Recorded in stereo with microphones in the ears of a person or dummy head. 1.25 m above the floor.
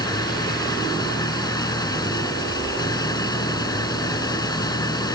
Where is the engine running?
20° left (ahead or behind).